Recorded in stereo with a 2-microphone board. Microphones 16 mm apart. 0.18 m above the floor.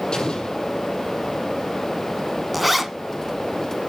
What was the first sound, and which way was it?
An explosion, 55° left (ahead or behind).